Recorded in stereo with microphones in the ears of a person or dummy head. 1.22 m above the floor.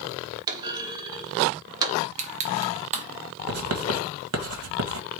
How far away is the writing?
About 1.6 m.